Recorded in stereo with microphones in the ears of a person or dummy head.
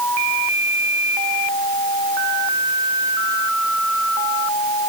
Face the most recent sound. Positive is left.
No sound to turn to.